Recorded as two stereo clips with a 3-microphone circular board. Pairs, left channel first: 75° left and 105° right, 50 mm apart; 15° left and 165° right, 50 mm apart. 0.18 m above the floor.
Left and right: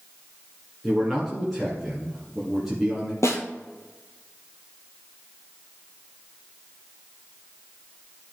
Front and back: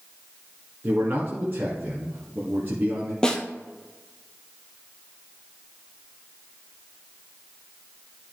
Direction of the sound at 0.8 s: 160° left.